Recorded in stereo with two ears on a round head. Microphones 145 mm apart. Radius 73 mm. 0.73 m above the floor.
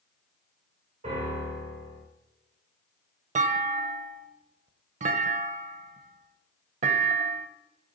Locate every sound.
1.0 s a piano: 45° right (ahead or behind), 4 m
3.4 s a clunk: 45° right (ahead or behind), 0.7 m